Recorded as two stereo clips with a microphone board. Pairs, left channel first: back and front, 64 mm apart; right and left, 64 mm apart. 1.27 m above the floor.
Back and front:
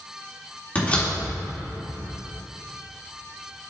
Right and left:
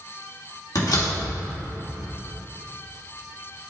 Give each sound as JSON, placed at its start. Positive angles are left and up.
{"t": 0.8, "sound": "a door slam", "azimuth_deg": -115, "distance_m": 1.9}